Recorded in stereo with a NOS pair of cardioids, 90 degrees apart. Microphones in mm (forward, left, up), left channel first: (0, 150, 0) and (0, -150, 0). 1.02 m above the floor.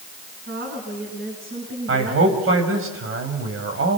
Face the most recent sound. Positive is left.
turn(degrees=-50)